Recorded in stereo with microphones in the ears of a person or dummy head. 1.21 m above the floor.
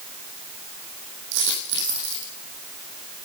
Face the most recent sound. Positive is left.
turn(degrees=-65)  # may be behind; listen again after turning